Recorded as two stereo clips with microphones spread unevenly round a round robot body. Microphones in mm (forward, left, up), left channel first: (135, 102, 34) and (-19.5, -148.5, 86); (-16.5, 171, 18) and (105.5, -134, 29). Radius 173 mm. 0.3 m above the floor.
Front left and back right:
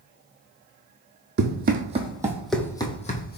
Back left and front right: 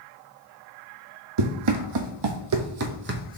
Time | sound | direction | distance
1.4 | running footsteps | 70° right | 1.0 m